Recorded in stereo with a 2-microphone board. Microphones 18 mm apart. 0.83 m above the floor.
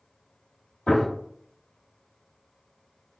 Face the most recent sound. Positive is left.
turn(degrees=70)  # may be behind; listen again after turning